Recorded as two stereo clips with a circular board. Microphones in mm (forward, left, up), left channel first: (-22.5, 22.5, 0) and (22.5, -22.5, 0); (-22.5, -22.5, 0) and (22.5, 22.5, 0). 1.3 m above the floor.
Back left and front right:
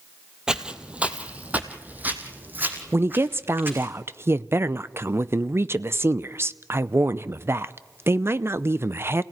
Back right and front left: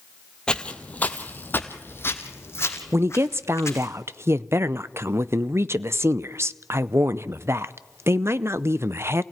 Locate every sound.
0.5 s footsteps: 95° right, 1.3 m; by 3.9 s 100° right, 3 m
2.9 s a woman speaking: straight ahead, 0.6 m